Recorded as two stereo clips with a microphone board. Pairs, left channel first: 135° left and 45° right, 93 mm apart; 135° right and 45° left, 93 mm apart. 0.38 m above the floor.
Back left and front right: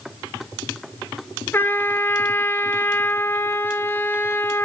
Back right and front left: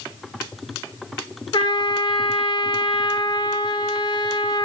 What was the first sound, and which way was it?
A trumpet, 160° right.